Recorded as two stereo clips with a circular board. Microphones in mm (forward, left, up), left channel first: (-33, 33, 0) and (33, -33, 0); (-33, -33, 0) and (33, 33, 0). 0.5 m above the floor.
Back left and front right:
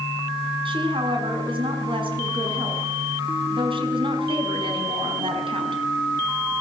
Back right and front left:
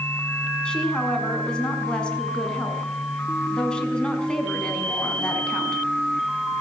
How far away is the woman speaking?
About 5.5 m.